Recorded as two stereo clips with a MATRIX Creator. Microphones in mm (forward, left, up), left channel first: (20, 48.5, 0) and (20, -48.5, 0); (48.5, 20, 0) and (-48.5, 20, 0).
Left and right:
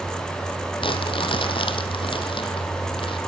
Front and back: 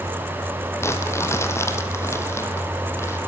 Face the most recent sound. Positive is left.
turn(degrees=65)